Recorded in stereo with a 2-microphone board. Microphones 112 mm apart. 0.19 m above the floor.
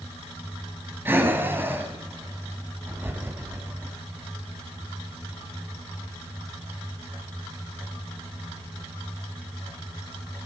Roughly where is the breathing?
Centre.